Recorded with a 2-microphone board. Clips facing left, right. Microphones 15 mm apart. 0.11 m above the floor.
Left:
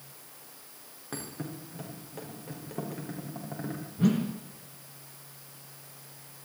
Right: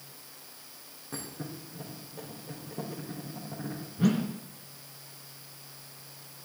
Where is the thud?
40° left (ahead or behind), 4.5 m.